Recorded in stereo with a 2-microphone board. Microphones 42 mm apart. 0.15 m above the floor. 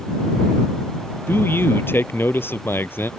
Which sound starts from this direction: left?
A man speaking, at 1.3 s.